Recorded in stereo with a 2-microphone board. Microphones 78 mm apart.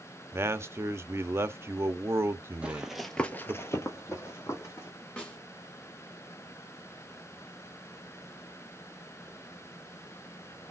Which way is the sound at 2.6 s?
15° right (ahead or behind).